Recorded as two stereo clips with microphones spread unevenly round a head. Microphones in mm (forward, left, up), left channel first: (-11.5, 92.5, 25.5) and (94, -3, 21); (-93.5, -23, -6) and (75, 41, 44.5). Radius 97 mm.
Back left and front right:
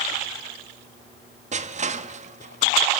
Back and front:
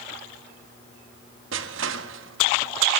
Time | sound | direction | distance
1.5 | crushing | 5° right | 1.6 m